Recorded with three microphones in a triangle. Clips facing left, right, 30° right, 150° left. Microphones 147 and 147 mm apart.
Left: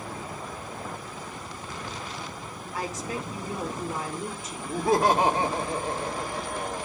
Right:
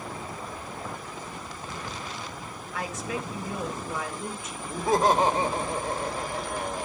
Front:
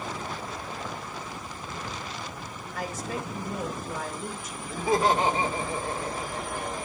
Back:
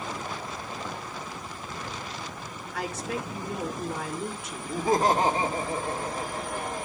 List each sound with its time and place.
2.7 s a woman speaking: 140° left, 3.5 m
4.7 s laughter: 105° left, 2.5 m